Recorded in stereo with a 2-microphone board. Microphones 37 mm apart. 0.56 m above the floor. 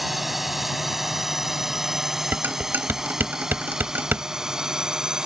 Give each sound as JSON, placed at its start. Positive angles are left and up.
{"t": 0.0, "sound": "a drone", "side_deg": -5}
{"t": 2.3, "sound": "dishes clattering", "side_deg": -60}